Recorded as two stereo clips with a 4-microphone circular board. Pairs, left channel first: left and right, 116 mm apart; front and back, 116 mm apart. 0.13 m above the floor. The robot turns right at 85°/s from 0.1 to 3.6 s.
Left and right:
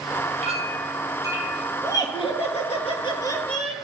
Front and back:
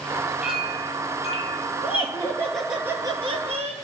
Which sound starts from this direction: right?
A clink, at 0.4 s.